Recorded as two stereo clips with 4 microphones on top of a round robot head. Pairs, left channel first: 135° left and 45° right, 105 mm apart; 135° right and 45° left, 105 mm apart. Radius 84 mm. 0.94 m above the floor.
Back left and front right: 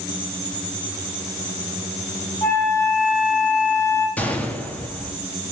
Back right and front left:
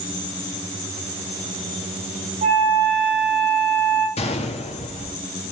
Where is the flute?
75° left, 6.5 m.